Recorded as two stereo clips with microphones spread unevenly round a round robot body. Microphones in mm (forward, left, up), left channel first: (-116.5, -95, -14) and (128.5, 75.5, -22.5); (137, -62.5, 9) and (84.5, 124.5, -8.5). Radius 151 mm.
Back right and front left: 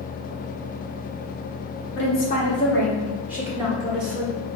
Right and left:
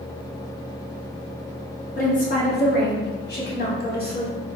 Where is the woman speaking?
115° right, 1.1 m; by 4.4 s 35° right, 2.5 m.